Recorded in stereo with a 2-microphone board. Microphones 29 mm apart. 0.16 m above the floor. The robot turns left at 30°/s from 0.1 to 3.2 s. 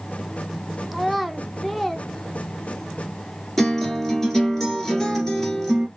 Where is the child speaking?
5° right (ahead or behind), 0.6 m; by 2.9 s 10° left (ahead or behind), 0.6 m.